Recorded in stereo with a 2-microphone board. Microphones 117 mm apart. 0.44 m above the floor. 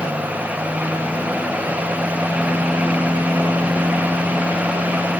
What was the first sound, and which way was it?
Only background noise.